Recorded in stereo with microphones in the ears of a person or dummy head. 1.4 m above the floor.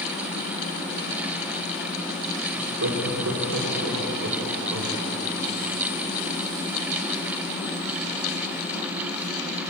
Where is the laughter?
80° right, 3.5 m.